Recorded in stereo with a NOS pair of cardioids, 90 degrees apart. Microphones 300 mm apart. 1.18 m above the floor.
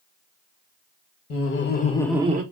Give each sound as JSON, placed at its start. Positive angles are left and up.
{"t": 1.3, "sound": "laughter", "azimuth_deg": 50, "distance_m": 1.1}